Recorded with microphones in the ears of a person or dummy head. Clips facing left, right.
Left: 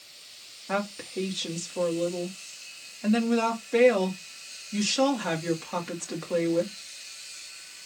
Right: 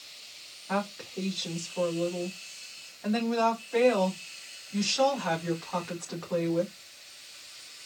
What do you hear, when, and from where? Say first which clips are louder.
0.7 s a woman speaking: left 2 dB; 40° left (ahead or behind), 2.0 m